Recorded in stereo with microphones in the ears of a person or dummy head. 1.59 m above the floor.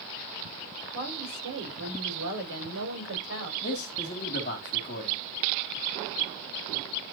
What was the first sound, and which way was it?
A woman speaking, 70° right (ahead or behind).